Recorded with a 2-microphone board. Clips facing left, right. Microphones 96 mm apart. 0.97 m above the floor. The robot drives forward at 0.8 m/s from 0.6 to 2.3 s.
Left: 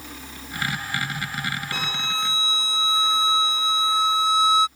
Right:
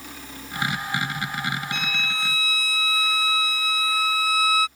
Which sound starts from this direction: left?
A violin, at 1.7 s.